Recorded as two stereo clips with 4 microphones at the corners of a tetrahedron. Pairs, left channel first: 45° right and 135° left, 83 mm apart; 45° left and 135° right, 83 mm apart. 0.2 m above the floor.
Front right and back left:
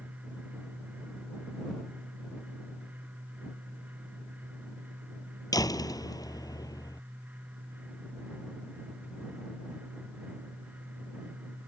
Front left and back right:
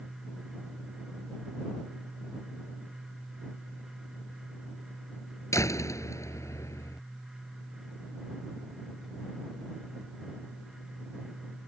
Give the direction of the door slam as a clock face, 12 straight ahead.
12 o'clock.